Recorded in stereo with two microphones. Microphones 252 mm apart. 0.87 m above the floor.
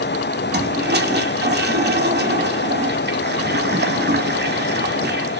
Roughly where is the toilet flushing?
Right.